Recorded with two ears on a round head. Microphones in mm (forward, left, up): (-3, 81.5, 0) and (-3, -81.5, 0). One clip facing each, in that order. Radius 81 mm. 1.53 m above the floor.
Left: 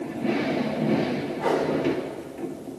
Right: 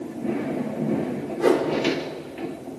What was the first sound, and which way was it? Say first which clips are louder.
A whoosh: right 6 dB; 60° right (ahead or behind).